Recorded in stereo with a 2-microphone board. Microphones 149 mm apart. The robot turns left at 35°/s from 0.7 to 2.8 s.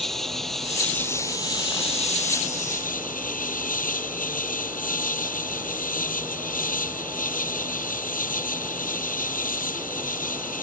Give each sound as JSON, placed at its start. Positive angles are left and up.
{"t": 0.0, "sound": "an insect", "azimuth_deg": 180}